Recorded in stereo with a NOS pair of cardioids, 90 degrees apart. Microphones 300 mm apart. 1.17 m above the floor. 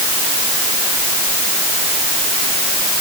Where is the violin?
No violin in this recording.